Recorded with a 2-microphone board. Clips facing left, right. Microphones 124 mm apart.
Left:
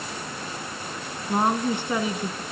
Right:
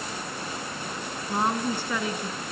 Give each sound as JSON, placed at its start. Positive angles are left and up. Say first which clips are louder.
{"t": 1.3, "sound": "a woman speaking", "louder": "left 4 dB", "side_deg": 20, "distance_m": 1.4}